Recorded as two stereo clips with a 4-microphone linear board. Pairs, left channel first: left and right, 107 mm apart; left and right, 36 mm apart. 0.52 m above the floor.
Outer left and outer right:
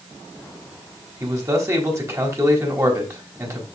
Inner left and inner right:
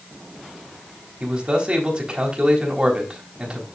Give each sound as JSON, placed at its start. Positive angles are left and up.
{"t": 1.2, "sound": "a man speaking", "side_deg": -30, "distance_m": 4.0}